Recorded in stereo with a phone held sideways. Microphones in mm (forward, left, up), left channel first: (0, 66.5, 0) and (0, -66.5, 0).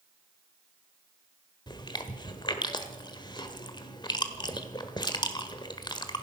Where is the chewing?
35° left (ahead or behind), 1.5 m.